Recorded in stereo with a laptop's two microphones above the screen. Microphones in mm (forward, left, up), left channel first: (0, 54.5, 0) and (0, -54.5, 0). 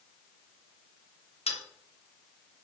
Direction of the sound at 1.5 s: 75° left (ahead or behind).